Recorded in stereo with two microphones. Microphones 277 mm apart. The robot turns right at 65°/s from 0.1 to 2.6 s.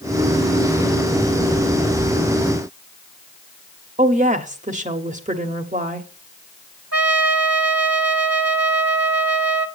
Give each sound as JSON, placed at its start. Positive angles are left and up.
{"t": 4.0, "sound": "a woman speaking", "side_deg": -25, "distance_m": 1.1}
{"t": 6.9, "sound": "a trumpet", "side_deg": -60, "distance_m": 0.9}